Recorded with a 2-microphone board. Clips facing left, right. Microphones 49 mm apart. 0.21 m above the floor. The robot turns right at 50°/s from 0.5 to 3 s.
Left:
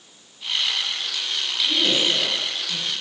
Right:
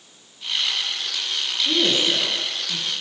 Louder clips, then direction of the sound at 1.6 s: Right 1 dB; 55° right (ahead or behind).